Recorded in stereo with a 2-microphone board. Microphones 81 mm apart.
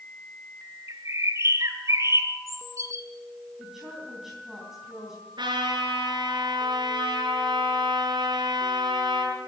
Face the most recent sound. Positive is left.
turn(degrees=-70)  # may be behind; listen again after turning